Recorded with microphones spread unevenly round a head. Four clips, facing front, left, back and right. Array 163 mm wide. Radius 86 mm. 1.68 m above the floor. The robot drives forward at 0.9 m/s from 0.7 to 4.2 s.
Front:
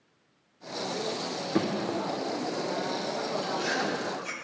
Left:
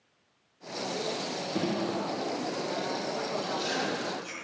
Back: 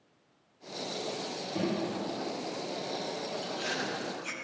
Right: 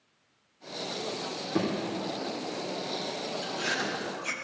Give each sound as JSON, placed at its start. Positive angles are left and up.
{"t": 1.6, "sound": "a thud", "azimuth_deg": -25, "distance_m": 3.0}
{"t": 3.4, "sound": "chewing", "azimuth_deg": -60, "distance_m": 1.8}